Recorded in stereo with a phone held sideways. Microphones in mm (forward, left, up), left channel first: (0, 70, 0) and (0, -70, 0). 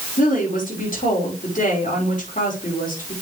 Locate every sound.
0.2 s a woman speaking: 75° left (ahead or behind), 5 m